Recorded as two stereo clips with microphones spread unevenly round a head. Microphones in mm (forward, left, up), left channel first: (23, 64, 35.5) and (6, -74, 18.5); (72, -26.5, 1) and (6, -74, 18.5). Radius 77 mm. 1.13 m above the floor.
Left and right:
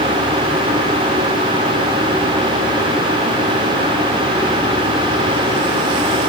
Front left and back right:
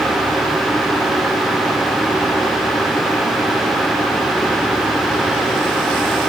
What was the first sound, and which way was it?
Only background noise.